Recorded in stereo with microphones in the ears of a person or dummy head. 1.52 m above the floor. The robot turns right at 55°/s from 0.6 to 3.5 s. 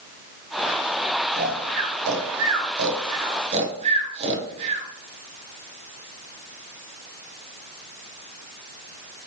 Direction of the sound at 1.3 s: 30° right (ahead or behind).